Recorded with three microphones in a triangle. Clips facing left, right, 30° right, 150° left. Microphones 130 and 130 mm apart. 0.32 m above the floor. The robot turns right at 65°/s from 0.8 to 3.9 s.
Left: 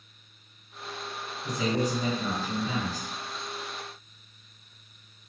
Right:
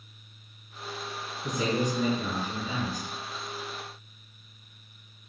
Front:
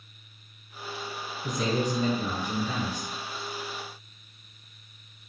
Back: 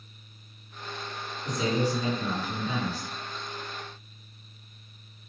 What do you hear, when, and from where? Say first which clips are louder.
1.4 s a man speaking: even, even; 25° right, 3 m; by 3.1 s 80° left, 3 m